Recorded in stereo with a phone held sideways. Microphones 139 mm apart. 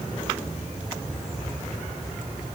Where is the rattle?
I don't hear a rattle.